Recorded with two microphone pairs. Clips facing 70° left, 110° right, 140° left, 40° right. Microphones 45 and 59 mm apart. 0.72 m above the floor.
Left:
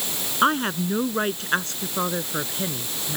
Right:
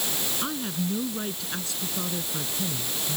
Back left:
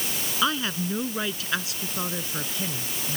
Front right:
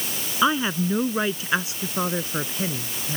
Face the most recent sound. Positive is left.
turn(degrees=20)